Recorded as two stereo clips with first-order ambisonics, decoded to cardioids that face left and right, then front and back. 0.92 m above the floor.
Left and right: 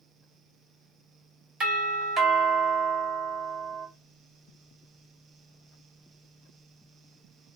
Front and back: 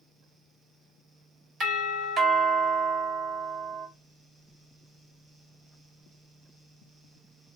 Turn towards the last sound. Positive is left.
turn(degrees=-140)